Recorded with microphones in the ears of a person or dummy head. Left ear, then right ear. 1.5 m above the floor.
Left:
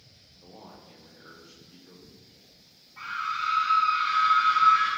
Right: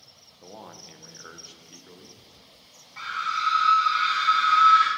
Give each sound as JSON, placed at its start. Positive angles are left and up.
{"t": 0.4, "sound": "a man speaking", "side_deg": -65, "distance_m": 0.7}
{"t": 3.0, "sound": "a scream", "side_deg": -65, "distance_m": 0.8}